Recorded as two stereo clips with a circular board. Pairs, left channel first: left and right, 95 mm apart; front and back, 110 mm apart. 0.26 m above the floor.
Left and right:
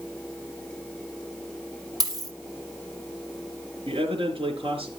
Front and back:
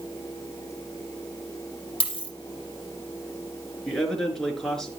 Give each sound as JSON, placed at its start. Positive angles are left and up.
{"t": 2.0, "sound": "a dropped coin", "azimuth_deg": -40, "distance_m": 4.0}
{"t": 3.9, "sound": "a man speaking", "azimuth_deg": -85, "distance_m": 4.5}